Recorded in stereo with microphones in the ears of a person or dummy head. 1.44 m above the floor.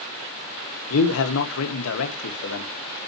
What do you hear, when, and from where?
0.9 s a man speaking: 80° left, 1.7 m